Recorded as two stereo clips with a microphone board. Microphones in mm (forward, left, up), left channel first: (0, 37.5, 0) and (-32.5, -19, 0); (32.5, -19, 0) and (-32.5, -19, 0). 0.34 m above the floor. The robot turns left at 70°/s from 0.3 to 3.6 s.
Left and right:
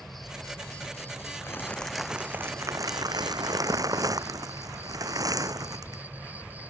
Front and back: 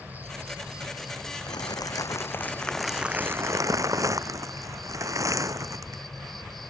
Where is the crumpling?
5° left; by 6.0 s 145° right.